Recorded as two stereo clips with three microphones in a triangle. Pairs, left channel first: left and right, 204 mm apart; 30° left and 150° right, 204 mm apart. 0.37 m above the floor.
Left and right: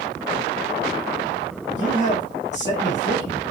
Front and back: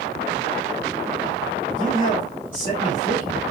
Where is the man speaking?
75° left, 1.2 m.